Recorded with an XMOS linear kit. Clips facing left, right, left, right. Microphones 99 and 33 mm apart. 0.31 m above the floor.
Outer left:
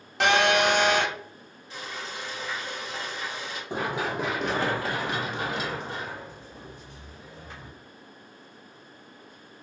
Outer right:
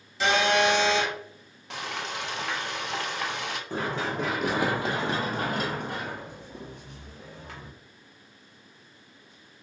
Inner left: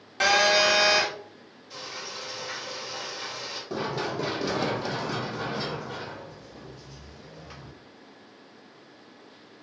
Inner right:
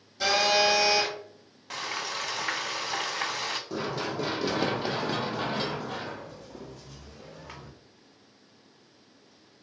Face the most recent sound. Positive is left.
turn(degrees=-80)